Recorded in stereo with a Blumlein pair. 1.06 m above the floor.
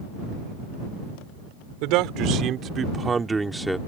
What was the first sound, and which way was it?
A man speaking, 45° right.